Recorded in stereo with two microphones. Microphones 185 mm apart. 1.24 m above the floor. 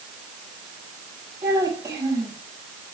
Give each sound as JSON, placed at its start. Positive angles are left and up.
{"t": 1.4, "sound": "a child speaking", "side_deg": -20, "distance_m": 7.5}